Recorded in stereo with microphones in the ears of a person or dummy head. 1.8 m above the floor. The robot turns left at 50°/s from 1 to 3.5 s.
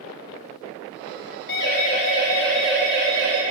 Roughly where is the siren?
Left.